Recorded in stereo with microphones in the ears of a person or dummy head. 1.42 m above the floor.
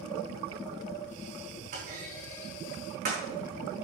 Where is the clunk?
45° right (ahead or behind), 4.5 m.